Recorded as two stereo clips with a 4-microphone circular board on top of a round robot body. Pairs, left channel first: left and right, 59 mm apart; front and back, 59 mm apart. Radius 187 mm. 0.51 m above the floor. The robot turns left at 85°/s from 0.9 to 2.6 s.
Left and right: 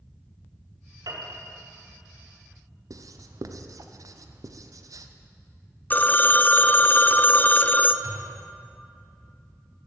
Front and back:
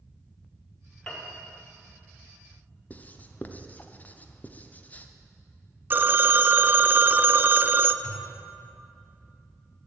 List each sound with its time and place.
1.1 s a piano: 80° right, 2.5 m; by 1.4 s 110° right, 2.5 m
2.9 s writing: 65° right, 0.7 m
5.9 s a phone ringing: 140° left, 0.6 m
8.0 s a thud: 55° right, 2.5 m